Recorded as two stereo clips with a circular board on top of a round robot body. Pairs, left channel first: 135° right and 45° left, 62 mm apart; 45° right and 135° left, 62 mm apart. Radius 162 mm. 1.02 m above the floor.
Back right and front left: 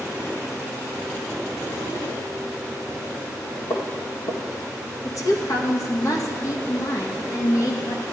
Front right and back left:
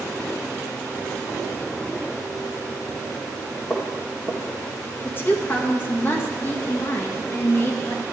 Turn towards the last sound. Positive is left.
turn(degrees=-105)